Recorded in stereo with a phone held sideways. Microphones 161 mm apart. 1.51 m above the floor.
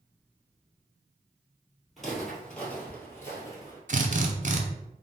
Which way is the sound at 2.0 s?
Centre (ahead or behind).